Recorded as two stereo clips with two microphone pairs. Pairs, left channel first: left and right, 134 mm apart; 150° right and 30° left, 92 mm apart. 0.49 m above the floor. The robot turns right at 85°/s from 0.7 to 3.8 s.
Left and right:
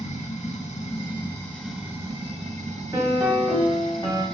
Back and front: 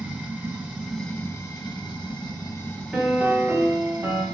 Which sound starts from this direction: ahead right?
A piano, at 2.9 s.